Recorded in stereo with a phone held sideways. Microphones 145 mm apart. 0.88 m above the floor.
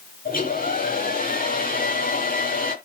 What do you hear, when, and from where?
0.2 s a hair dryer: 80° left, 9 m